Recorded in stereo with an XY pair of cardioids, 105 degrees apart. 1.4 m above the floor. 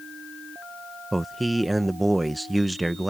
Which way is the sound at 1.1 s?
15° right.